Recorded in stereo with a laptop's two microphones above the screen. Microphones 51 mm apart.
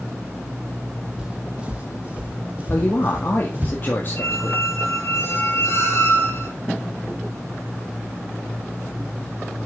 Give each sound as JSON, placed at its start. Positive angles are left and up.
{"t": 1.2, "sound": "footsteps", "side_deg": -20, "distance_m": 1.9}
{"t": 2.7, "sound": "a woman speaking", "side_deg": 40, "distance_m": 1.7}
{"t": 4.2, "sound": "a squeak", "side_deg": 60, "distance_m": 3.5}